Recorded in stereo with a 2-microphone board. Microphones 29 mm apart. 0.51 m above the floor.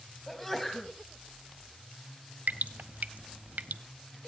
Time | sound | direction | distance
0.3 | a sneeze | 10° left (ahead or behind) | 4 m
2.5 | dripping | 75° right (ahead or behind) | 0.6 m